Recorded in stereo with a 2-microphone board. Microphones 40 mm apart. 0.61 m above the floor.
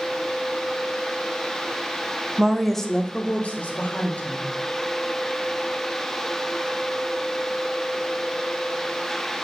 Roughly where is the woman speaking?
Centre.